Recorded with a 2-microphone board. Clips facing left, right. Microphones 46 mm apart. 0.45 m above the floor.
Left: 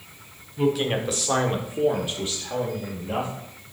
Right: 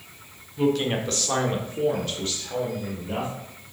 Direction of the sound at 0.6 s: Centre (ahead or behind).